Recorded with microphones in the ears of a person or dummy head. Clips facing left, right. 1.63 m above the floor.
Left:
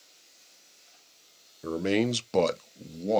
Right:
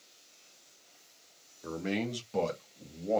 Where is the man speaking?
40° left (ahead or behind), 0.5 m; by 3.2 s 50° left (ahead or behind), 0.8 m.